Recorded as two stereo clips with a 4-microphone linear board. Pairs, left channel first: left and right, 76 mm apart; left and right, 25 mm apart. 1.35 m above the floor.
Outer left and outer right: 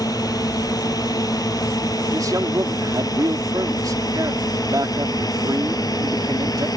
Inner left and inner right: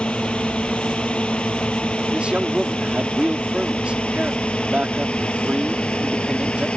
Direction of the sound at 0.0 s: 55° left (ahead or behind).